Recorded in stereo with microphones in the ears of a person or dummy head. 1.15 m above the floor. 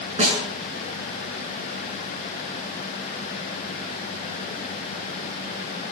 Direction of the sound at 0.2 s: 30° right (ahead or behind).